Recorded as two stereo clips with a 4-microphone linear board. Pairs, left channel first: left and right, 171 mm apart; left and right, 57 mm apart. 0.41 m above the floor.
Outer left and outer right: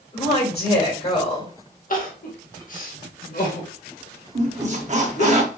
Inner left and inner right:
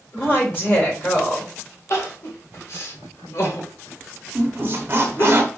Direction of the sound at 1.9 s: 50° left (ahead or behind).